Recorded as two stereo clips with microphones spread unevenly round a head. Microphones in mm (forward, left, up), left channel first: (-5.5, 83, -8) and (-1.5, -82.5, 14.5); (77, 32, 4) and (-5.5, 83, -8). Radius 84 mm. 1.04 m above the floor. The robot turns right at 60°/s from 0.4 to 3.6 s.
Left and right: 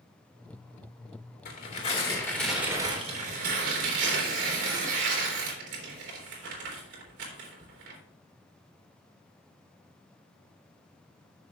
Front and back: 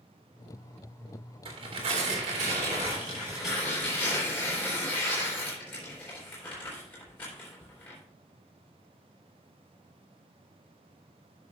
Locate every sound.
1.4 s tearing paper: 120° left, 3 m; by 8.0 s 110° right, 3 m